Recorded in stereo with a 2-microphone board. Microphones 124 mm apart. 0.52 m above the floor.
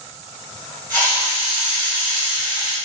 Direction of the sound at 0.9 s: 15° left (ahead or behind).